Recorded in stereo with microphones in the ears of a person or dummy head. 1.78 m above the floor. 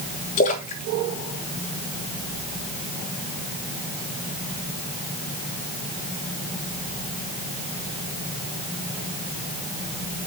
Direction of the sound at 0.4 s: 40° left (ahead or behind).